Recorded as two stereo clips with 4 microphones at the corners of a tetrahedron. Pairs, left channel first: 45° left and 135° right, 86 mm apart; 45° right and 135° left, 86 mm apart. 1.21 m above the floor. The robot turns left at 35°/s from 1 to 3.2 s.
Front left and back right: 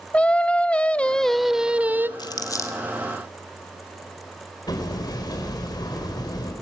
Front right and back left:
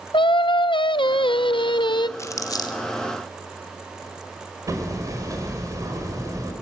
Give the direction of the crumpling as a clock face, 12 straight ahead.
12 o'clock.